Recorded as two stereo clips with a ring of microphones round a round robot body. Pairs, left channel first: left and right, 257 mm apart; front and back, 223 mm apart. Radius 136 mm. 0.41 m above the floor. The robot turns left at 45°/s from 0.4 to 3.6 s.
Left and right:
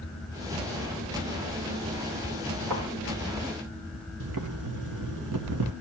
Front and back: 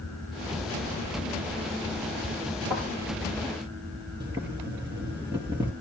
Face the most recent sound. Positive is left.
turn(degrees=-105)